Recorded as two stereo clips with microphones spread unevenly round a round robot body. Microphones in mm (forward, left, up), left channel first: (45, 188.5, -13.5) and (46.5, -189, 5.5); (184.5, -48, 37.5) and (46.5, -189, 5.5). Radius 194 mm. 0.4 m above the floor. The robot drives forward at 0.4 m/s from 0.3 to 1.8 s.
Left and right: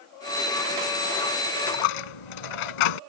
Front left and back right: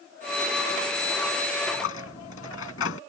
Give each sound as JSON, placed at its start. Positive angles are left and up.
{"t": 1.7, "sound": "a dropped coin", "azimuth_deg": 100}